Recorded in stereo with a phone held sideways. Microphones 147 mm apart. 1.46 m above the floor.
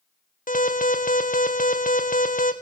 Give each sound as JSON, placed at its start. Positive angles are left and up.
{"t": 0.5, "sound": "an alarm", "side_deg": 70, "distance_m": 1.6}